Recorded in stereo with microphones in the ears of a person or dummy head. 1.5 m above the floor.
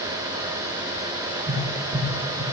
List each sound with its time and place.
1.5 s tapping: 40° right (ahead or behind), 5 m